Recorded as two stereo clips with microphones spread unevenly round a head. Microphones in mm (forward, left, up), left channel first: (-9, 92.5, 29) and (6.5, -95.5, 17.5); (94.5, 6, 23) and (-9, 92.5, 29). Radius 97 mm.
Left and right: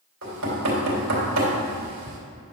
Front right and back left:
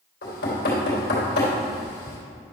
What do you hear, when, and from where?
0.2 s knocking: 60° right, 2.5 m